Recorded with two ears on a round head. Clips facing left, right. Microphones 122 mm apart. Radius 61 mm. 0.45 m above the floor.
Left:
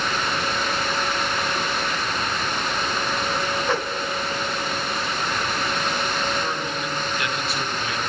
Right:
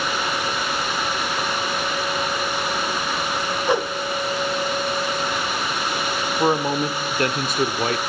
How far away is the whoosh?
About 1.0 m.